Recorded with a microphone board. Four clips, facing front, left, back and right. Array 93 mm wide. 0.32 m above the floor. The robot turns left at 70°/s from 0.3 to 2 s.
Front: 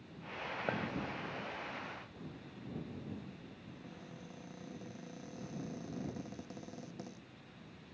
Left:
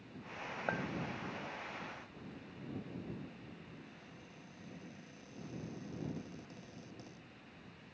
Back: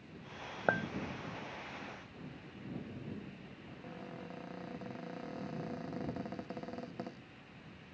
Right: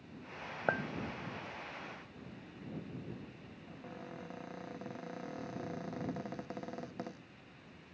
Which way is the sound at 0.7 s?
150° right.